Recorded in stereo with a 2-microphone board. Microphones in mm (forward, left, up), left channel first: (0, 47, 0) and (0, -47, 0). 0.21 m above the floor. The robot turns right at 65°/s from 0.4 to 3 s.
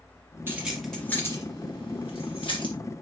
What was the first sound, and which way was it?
Keys jangling, 20° right (ahead or behind).